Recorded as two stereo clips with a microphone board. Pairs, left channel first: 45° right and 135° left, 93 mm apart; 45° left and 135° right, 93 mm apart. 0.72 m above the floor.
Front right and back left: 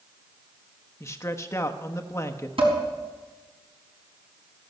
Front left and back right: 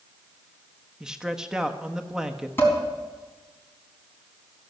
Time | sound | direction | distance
1.0 | a man speaking | 60° right | 1.0 m
2.6 | dishes clattering | 115° left | 4 m